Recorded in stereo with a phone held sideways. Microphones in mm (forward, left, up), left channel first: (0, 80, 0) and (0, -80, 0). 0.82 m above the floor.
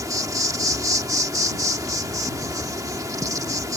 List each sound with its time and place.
0.0 s an insect: 20° right (ahead or behind)